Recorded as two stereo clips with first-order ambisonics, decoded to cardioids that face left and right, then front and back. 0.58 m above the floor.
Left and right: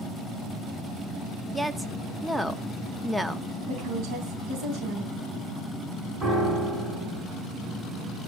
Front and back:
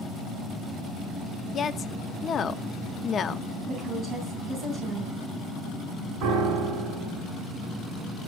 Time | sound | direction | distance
1.5 | a woman speaking | 10° right | 0.6 m
3.7 | a woman speaking | 120° right | 3.5 m
6.2 | a piano | 155° right | 5.5 m